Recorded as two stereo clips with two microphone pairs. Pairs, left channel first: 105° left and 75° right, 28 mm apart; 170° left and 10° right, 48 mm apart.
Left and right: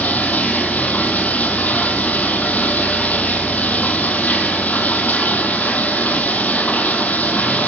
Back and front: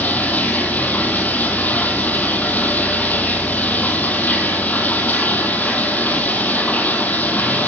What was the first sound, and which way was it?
Running water, 115° left.